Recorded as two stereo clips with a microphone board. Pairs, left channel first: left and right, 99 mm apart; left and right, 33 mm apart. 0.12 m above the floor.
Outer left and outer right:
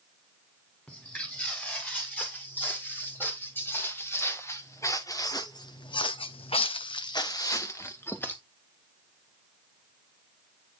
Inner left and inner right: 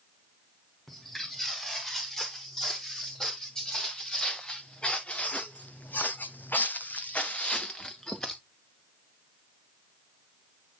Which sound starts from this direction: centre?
Footsteps, at 0.9 s.